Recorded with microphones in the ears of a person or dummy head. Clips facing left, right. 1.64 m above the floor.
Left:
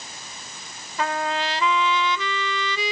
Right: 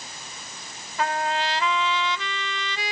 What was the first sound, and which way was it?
A trumpet, 80° left.